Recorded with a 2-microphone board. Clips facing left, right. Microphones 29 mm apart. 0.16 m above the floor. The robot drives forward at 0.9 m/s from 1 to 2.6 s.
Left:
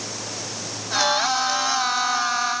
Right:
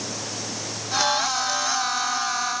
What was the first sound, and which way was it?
Only background noise.